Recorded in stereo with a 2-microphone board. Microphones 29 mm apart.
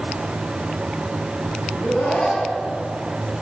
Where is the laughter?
15° left (ahead or behind), 10 m.